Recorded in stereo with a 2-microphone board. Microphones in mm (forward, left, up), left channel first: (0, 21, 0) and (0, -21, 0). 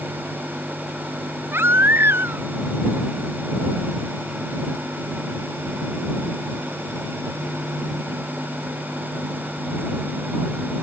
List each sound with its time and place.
1.5 s a baby crying: 75° right (ahead or behind)